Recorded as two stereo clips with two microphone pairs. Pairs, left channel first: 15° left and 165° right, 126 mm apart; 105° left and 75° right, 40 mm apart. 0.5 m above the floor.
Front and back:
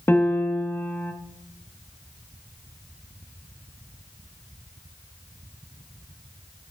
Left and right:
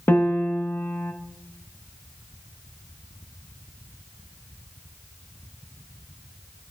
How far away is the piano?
About 1.0 m.